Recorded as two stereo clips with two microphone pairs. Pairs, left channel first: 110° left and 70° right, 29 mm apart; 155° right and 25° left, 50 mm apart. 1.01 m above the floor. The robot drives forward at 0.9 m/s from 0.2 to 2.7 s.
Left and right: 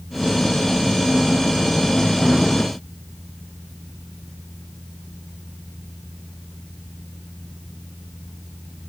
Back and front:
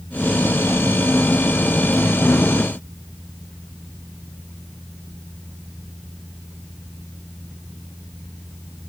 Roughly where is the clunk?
I don't hear a clunk.